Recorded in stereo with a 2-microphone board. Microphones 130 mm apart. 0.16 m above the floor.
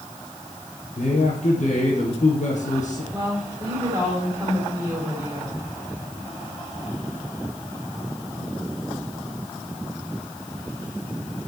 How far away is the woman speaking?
About 7 m.